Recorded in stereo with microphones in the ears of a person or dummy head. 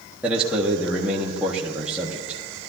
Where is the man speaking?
10° right (ahead or behind), 1.5 m.